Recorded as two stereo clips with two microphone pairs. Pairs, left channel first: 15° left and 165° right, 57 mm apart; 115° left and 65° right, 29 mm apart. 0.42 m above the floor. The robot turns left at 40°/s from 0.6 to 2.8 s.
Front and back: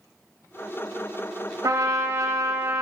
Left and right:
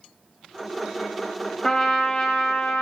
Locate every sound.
1.6 s a trumpet: 170° right, 0.8 m; by 2.8 s 145° left, 0.8 m